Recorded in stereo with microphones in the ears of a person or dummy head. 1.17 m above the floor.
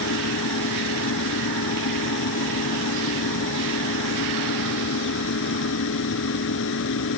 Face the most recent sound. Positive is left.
turn(degrees=75)  # may be behind; listen again after turning